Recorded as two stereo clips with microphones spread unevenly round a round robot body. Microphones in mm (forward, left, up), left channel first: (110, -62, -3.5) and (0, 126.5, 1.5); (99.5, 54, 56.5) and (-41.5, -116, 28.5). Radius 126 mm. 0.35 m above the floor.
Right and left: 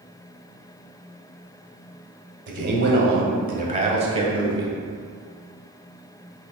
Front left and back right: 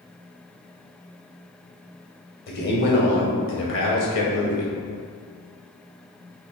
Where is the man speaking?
100° left, 1.7 m; by 4.8 s 50° left, 1.9 m.